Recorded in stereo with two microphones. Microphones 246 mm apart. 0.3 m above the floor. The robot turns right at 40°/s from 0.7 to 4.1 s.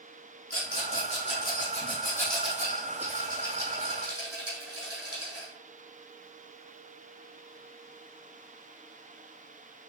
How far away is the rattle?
About 3.5 m.